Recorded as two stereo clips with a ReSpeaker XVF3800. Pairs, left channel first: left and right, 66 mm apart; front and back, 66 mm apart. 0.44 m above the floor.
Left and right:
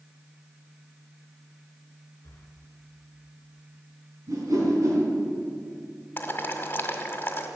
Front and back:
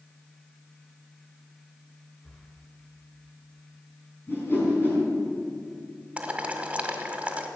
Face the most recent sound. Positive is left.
turn(degrees=125)